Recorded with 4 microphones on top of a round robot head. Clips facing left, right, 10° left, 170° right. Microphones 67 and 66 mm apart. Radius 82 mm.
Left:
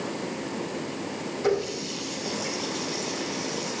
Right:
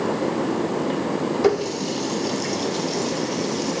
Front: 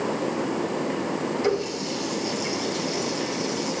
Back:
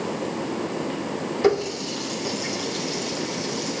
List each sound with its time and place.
1.4 s a running tap: 125° right, 1.7 m